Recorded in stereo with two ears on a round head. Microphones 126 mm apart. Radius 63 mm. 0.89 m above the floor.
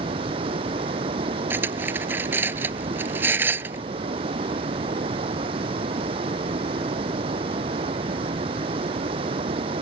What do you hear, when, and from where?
0.0 s running water: 40° right (ahead or behind)
1.5 s cutlery clinking: 15° right (ahead or behind)